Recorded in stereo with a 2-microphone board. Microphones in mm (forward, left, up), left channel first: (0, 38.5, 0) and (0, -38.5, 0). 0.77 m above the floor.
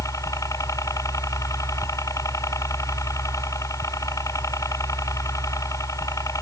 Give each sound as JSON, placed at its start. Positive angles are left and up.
{"t": 0.0, "sound": "a helicopter", "side_deg": 45}